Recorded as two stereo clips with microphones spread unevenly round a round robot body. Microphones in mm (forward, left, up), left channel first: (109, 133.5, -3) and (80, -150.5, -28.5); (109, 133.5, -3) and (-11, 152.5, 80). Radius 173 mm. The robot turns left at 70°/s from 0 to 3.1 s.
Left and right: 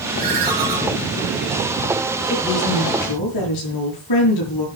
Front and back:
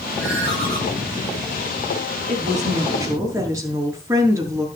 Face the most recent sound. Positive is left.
turn(degrees=100)